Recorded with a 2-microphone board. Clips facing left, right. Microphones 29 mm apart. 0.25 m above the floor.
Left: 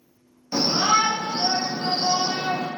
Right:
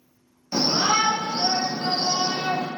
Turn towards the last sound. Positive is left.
turn(degrees=0)  # may be behind; listen again after turning